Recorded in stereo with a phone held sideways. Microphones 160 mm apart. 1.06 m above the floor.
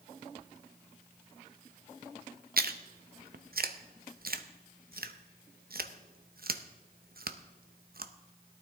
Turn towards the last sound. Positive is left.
turn(degrees=-70)  # may be behind; listen again after turning